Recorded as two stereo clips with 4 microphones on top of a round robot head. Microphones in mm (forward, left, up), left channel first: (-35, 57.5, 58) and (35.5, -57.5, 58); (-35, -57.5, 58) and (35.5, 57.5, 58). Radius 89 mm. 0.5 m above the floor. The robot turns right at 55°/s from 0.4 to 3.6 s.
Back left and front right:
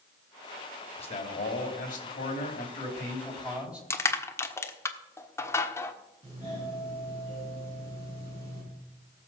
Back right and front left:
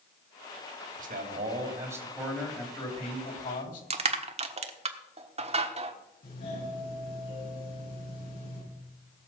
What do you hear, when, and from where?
1.0 s a man speaking: 80° left, 3.5 m; by 3.8 s 140° right, 3.5 m
3.9 s crushing: 55° left, 1.4 m
6.2 s a doorbell: 110° right, 9 m